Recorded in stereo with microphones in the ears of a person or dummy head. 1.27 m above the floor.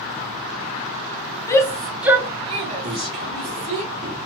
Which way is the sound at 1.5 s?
20° left (ahead or behind).